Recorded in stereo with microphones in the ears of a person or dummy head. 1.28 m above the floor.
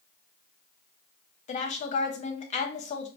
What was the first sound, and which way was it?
A woman speaking, 40° left (ahead or behind).